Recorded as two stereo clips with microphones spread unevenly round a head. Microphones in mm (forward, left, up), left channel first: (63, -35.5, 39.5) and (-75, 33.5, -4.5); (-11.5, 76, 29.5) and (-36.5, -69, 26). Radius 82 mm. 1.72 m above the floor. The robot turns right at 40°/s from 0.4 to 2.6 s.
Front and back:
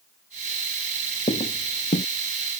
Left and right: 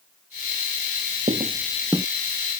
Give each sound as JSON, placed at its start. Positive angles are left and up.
{"t": 1.3, "sound": "footsteps", "azimuth_deg": -55}